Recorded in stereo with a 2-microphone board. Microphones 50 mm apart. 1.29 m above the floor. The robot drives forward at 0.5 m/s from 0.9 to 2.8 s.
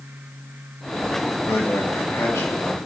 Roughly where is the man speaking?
Left.